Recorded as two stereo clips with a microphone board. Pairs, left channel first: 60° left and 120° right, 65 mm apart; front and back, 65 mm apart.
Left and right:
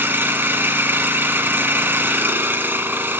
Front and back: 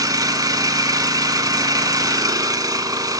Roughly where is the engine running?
Behind.